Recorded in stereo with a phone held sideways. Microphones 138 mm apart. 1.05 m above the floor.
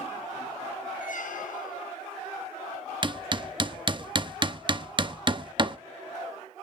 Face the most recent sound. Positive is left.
turn(degrees=-35)  # may be behind; listen again after turning